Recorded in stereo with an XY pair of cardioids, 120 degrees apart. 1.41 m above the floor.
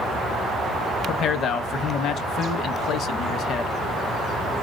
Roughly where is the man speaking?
Ahead left.